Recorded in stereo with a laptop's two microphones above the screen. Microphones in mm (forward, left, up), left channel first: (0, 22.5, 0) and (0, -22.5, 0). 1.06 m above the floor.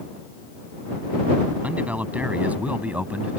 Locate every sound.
1.6 s a man speaking: 35° right (ahead or behind)